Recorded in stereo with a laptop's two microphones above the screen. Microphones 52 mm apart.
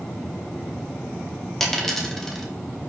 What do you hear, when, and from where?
1.6 s a dropped coin: 5° left (ahead or behind), 0.6 m